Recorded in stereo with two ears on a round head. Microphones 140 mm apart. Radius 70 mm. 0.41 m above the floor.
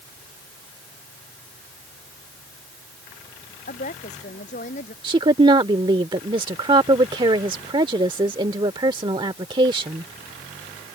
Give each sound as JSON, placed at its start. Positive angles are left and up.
{"t": 3.7, "sound": "a woman speaking", "side_deg": 50}
{"t": 5.0, "sound": "a woman speaking", "side_deg": -30}